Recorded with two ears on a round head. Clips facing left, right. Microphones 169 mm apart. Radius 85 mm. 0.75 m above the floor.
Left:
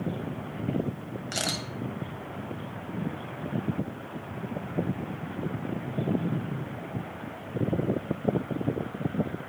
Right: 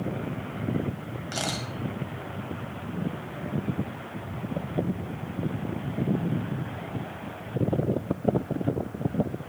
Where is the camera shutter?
25° left (ahead or behind), 1.5 m.